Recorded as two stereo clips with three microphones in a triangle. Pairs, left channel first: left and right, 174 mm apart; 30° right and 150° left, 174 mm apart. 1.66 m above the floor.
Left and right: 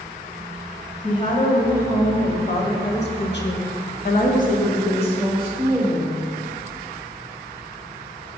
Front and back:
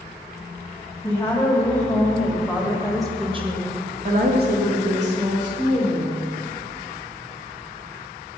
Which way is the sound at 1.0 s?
45° left.